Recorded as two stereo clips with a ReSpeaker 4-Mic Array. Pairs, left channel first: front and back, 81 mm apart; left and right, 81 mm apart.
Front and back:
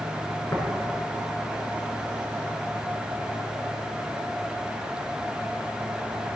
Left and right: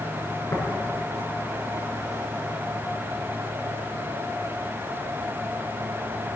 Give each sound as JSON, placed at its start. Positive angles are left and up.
{"t": 0.5, "sound": "tapping", "azimuth_deg": 55, "distance_m": 4.5}